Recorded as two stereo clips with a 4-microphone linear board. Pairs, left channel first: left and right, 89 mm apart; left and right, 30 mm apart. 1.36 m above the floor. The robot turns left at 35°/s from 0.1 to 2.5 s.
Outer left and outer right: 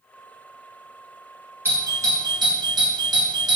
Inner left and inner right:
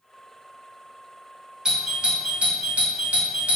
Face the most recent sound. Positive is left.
turn(degrees=-55)  # may be behind; listen again after turning